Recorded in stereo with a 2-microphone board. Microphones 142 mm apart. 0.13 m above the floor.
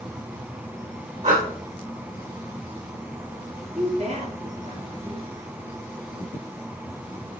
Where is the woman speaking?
50° right (ahead or behind), 2.5 m.